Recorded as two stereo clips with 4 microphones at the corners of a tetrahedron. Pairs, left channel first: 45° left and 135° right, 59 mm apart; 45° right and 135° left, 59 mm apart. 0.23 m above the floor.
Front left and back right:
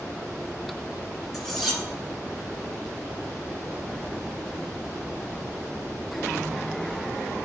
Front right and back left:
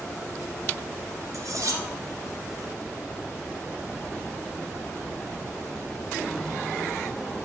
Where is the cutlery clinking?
135° left, 2.0 m.